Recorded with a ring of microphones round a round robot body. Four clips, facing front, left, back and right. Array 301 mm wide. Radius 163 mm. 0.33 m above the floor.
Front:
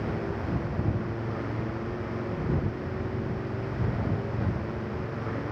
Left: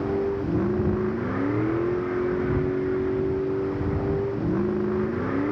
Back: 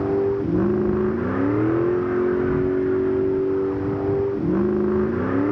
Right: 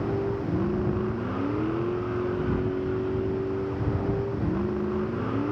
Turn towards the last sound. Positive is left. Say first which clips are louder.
# left 3 dB, back 12 dB
turn(degrees=170)